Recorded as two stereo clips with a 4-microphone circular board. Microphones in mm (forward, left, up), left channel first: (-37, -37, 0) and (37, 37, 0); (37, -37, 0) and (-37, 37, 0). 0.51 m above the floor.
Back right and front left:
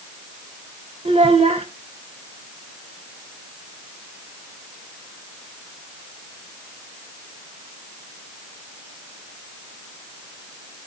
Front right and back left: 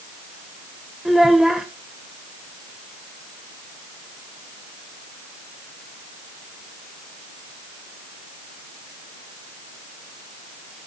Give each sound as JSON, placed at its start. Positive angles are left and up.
{"t": 1.1, "sound": "a child speaking", "azimuth_deg": 50, "distance_m": 1.0}